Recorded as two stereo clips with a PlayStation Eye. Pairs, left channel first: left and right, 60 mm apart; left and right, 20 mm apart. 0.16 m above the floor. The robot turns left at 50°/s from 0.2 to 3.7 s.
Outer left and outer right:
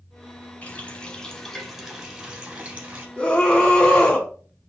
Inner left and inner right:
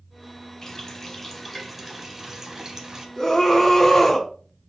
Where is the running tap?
60° left, 1.0 m; by 3.1 s 60° right, 1.0 m.